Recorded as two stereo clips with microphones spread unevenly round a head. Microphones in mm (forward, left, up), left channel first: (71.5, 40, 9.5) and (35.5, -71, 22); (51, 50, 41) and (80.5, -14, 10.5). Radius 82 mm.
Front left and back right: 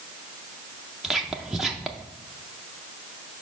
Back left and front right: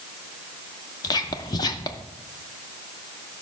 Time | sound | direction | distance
1.0 | whispering | 160° left | 0.6 m